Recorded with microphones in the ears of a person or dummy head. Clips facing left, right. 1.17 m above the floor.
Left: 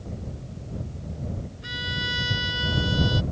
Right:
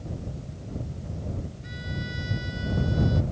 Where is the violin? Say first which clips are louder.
Left 1 dB; 75° left (ahead or behind).